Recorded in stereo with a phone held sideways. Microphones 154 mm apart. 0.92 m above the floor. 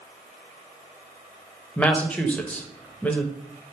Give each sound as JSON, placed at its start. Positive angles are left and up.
{"t": 1.8, "sound": "a woman speaking", "side_deg": 10, "distance_m": 0.6}